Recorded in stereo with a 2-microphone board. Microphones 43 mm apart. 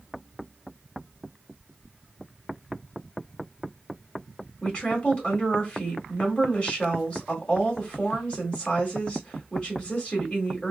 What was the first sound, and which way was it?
A woman speaking, 25° left (ahead or behind).